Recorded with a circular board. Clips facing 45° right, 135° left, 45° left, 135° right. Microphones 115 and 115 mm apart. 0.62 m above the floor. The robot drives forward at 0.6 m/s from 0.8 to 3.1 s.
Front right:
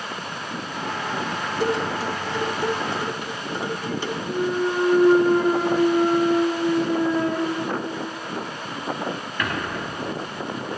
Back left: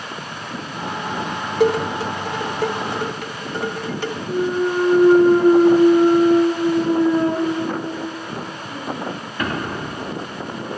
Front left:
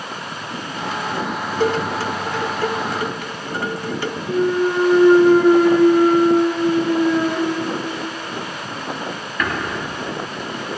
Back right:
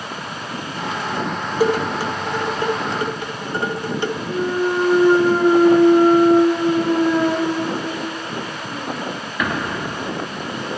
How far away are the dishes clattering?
About 1.6 m.